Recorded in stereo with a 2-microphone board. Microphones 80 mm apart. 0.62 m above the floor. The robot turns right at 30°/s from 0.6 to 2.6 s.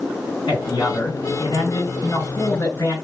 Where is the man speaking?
85° left, 3 m; by 3.0 s 145° left, 3 m.